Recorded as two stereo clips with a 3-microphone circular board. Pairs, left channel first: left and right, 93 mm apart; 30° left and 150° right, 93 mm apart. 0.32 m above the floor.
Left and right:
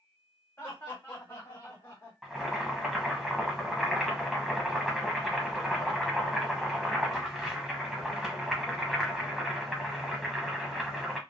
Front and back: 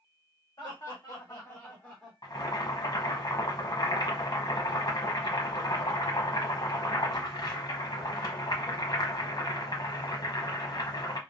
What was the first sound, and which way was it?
Laughter, 35° left.